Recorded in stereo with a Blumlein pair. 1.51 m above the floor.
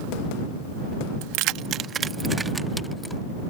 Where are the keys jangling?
45° right; by 3.2 s 5° left.